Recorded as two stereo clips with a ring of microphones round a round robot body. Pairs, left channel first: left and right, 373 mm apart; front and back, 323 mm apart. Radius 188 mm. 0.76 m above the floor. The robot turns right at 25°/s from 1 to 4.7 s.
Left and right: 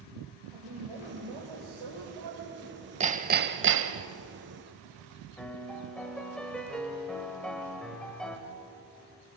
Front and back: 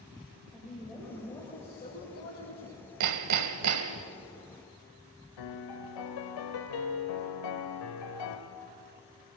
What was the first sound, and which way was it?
A woman speaking, 90° right.